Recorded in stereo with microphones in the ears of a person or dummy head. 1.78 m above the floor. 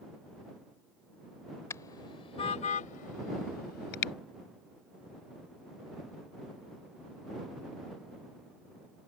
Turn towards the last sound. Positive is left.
turn(degrees=60)  # may be behind; listen again after turning